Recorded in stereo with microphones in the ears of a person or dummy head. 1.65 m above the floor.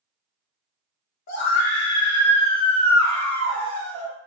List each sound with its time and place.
1.3 s a scream: 50° left (ahead or behind), 0.7 m; by 4.1 s 10° left (ahead or behind), 2.5 m